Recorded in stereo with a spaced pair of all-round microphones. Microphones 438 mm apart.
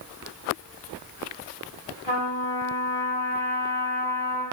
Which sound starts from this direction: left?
A trumpet, at 2.0 s.